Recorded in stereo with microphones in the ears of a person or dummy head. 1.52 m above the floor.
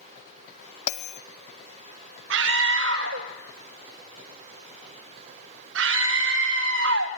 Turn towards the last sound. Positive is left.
turn(degrees=-65)  # may be behind; listen again after turning